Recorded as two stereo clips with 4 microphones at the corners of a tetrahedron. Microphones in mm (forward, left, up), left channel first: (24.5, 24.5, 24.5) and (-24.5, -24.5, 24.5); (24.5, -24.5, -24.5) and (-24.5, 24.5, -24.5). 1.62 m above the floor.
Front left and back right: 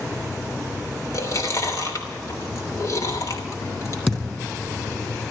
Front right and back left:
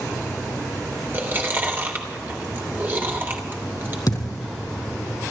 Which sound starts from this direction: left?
Chewing, at 1.1 s.